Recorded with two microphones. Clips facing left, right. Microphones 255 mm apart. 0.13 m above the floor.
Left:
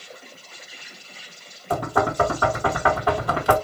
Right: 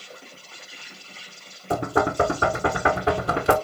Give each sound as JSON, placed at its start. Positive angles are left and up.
{"t": 0.0, "sound": "an insect", "side_deg": -30, "distance_m": 3.0}
{"t": 1.7, "sound": "knocking", "side_deg": -25, "distance_m": 0.9}